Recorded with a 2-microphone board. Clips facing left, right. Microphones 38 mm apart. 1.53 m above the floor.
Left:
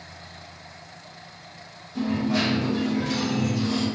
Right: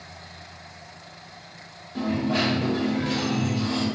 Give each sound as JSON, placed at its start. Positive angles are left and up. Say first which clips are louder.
{"t": 1.9, "sound": "a dropped coin", "louder": "even", "side_deg": -35, "distance_m": 1.3}